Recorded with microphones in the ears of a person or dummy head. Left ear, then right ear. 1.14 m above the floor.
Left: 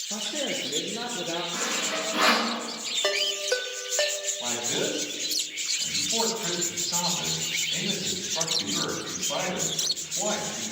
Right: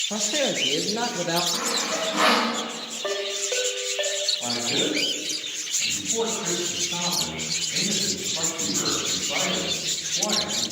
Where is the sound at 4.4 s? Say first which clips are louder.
Right 3 dB; 20° left (ahead or behind), 5 m.